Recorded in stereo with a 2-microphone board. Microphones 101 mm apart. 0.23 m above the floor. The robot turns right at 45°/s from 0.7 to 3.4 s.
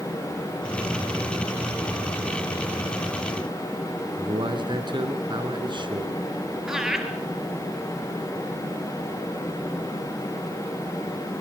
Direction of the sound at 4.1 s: 50° right (ahead or behind).